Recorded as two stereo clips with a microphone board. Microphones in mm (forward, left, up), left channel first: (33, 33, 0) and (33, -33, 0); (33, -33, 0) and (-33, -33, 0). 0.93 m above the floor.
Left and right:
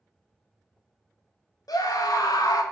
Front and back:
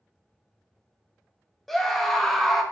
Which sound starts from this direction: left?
A scream, at 1.7 s.